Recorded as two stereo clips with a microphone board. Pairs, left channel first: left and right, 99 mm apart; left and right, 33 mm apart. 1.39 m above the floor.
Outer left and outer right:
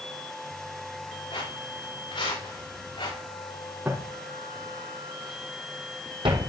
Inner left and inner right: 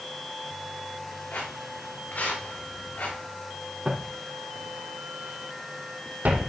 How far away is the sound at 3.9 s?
About 3 m.